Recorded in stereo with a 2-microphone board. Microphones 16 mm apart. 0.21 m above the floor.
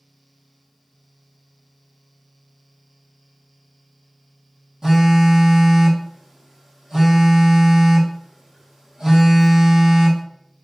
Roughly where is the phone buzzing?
Right.